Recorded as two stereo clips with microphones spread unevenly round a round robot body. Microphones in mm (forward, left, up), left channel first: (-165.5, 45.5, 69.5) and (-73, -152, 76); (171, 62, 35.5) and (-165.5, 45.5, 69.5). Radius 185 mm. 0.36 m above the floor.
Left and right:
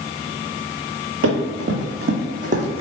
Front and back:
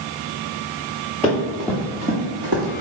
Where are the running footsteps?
85° right, 1.2 m; by 2.8 s 130° right, 1.0 m.